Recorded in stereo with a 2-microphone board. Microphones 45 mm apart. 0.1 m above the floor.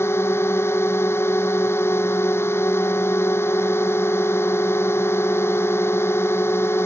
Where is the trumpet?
I don't hear a trumpet.